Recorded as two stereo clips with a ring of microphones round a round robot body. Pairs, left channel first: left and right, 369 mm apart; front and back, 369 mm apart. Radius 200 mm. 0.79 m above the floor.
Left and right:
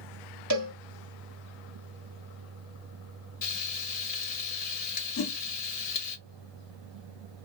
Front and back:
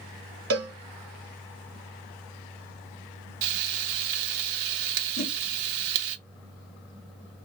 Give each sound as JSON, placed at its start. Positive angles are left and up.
{"t": 0.5, "sound": "a cowbell", "azimuth_deg": -130, "distance_m": 1.5}
{"t": 3.4, "sound": "frying", "azimuth_deg": 160, "distance_m": 0.6}
{"t": 5.2, "sound": "a whoosh", "azimuth_deg": 50, "distance_m": 1.2}